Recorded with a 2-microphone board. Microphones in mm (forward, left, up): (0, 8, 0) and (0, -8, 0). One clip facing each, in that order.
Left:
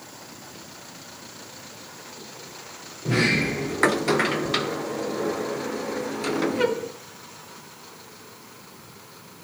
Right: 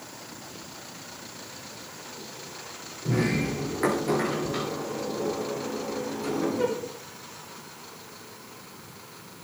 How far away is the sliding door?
About 1.5 m.